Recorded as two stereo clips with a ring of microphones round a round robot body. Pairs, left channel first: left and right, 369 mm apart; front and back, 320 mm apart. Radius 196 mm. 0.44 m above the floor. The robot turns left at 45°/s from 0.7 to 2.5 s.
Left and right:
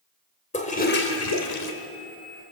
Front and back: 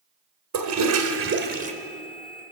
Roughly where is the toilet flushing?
Behind.